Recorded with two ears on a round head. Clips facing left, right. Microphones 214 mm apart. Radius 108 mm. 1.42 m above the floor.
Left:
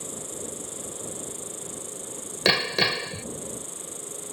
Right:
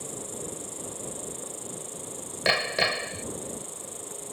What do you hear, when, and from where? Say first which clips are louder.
0.0 s an insect: even; 15° left (ahead or behind)
2.5 s hammering: left 3 dB; 60° left (ahead or behind)